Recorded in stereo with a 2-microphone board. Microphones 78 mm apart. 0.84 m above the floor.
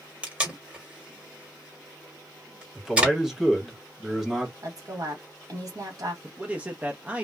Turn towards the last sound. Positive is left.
turn(degrees=-20)  # may be behind; listen again after turning